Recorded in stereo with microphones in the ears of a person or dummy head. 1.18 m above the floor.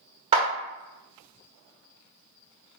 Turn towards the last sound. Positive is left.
turn(degrees=-30)  # may be behind; listen again after turning